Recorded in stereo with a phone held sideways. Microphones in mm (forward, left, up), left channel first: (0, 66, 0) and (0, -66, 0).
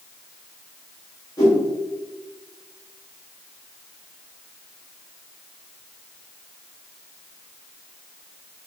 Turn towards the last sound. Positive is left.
turn(degrees=25)  # may be behind; listen again after turning